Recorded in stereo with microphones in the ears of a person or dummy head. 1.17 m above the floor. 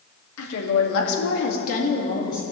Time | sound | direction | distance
0.4 | a woman speaking | 85° left | 2 m